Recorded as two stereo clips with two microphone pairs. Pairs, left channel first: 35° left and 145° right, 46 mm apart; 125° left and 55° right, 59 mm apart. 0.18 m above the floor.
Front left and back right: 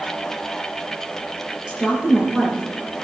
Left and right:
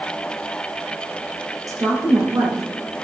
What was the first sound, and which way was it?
A woman speaking, 75° right.